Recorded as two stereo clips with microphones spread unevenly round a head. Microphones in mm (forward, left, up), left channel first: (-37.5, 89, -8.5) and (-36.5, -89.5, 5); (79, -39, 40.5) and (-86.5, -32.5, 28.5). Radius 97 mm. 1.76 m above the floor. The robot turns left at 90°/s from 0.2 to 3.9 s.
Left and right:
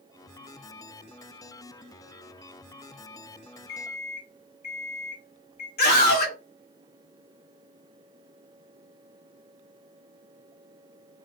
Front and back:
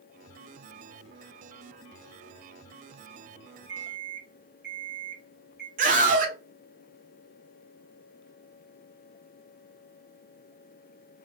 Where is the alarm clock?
155° left, 2 m; by 5.7 s 140° left, 2 m.